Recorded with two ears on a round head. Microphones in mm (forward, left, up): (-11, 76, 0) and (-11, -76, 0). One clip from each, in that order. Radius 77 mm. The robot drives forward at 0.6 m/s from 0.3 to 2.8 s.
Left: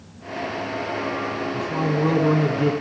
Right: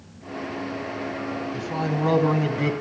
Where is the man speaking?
25° right (ahead or behind), 2.5 m; by 2.7 s 35° right (ahead or behind), 2.0 m.